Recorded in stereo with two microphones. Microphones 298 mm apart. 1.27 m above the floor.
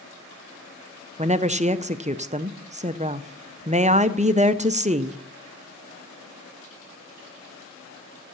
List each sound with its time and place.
1.2 s a woman speaking: 25° right (ahead or behind), 0.5 m